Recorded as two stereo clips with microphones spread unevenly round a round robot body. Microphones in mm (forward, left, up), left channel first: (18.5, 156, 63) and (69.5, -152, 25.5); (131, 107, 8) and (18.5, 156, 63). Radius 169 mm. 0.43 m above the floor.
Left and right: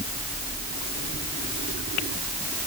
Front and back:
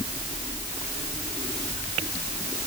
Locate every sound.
Only background noise.